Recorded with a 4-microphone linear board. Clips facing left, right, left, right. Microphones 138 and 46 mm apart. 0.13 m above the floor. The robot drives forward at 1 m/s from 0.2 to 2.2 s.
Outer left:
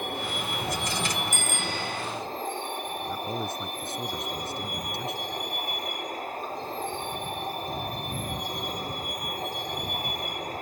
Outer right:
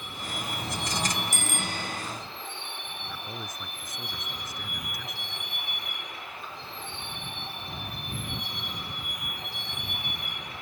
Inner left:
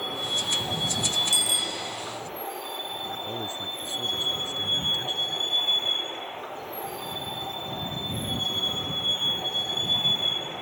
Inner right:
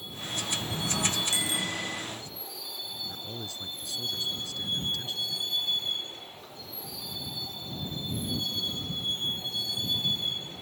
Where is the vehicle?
50° left (ahead or behind); by 10.6 s 40° left (ahead or behind).